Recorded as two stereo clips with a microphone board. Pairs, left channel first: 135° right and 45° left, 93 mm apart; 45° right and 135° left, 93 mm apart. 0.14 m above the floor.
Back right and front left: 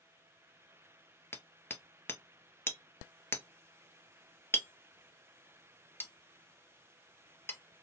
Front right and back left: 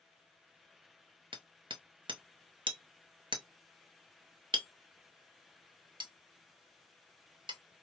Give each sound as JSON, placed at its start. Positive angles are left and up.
{"t": 1.3, "sound": "hammering", "azimuth_deg": 160, "distance_m": 0.5}